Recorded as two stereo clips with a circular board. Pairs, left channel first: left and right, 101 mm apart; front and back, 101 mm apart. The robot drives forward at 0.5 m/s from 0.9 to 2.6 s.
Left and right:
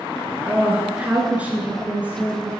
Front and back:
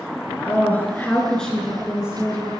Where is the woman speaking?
40° right, 1.3 m; by 2.5 s 140° right, 1.3 m.